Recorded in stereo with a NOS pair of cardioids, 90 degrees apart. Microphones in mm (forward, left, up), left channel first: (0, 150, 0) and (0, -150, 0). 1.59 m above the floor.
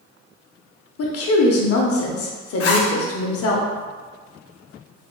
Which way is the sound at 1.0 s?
50° left.